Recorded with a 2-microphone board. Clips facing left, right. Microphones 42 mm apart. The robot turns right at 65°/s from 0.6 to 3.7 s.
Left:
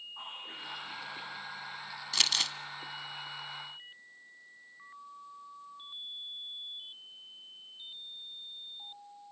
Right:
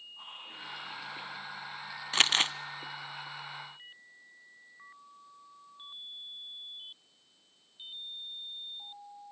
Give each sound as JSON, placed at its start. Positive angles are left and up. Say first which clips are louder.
{"t": 0.2, "sound": "whispering", "louder": "left 1 dB", "azimuth_deg": 120, "distance_m": 9.0}
{"t": 2.1, "sound": "crumpling", "louder": "right 5 dB", "side_deg": -35, "distance_m": 0.5}